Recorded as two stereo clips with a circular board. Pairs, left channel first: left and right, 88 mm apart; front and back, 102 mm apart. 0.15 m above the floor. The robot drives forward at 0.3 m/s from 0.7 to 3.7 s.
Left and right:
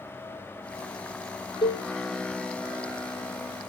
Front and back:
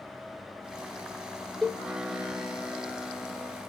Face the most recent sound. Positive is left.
turn(degrees=125)